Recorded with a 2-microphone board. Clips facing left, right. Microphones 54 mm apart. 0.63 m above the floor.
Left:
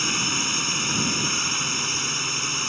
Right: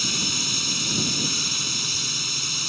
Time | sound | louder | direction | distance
0.0 | a drone | left 3 dB | 35° left (ahead or behind) | ?